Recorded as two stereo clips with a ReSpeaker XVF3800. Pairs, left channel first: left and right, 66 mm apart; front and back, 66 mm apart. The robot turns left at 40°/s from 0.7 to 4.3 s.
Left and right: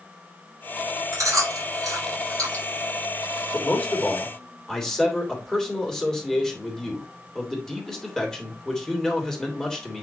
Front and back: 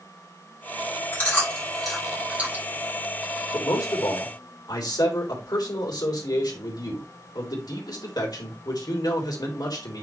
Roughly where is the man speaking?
Ahead left.